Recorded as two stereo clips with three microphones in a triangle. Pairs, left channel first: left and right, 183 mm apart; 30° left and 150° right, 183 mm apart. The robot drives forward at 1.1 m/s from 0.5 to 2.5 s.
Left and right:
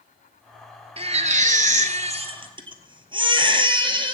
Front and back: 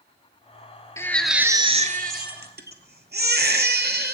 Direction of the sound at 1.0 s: 40° right.